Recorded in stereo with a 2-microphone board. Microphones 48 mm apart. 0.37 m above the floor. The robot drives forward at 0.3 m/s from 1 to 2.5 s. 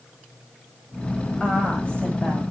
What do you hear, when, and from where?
1.4 s a woman speaking: 25° left (ahead or behind), 1.6 m; by 2.4 s 20° left (ahead or behind), 1.9 m